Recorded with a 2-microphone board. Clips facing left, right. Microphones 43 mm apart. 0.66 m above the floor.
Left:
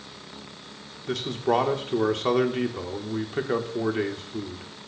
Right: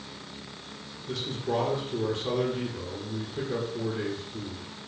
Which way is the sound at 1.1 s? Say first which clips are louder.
Left 6 dB; 60° left (ahead or behind).